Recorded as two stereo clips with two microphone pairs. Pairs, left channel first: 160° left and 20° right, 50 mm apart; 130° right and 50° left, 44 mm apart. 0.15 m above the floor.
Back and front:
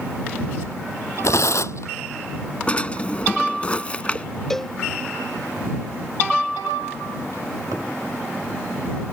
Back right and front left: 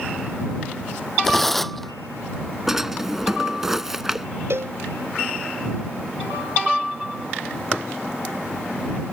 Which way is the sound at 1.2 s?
145° left.